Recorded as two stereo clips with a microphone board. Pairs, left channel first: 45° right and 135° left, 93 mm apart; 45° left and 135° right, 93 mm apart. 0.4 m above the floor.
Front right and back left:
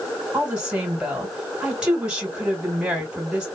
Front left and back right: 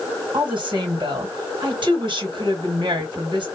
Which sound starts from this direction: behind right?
A woman speaking, at 0.3 s.